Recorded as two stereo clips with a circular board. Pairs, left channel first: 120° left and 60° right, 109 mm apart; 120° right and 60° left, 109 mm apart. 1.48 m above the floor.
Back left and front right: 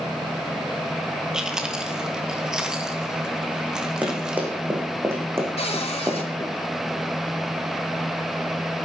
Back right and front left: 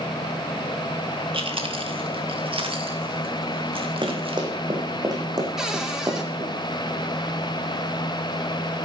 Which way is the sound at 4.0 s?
15° left.